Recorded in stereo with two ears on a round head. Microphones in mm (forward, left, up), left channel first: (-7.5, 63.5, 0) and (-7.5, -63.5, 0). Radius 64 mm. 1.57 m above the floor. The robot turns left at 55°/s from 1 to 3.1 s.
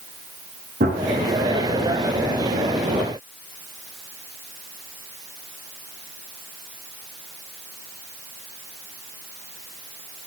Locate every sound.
0.8 s a gunshot: 55° right (ahead or behind), 7 m